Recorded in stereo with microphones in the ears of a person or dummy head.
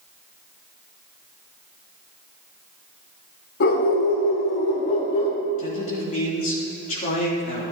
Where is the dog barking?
60° left (ahead or behind), 1.7 m; by 5.4 s 40° left (ahead or behind), 2.5 m.